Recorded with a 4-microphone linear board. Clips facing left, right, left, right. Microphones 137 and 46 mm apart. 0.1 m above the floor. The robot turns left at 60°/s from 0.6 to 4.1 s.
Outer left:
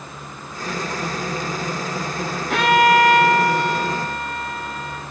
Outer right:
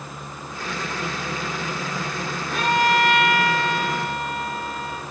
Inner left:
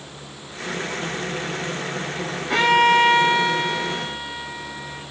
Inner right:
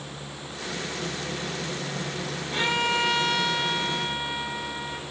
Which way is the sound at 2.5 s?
80° left.